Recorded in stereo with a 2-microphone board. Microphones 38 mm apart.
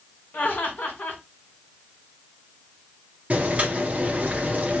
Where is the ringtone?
No ringtone in this recording.